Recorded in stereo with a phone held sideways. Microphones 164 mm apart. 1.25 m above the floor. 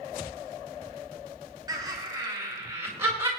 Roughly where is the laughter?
Right.